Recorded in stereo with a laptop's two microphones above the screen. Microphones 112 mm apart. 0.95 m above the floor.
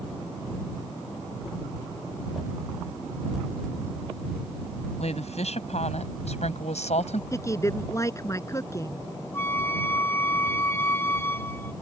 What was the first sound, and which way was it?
A woman speaking, 75° left (ahead or behind).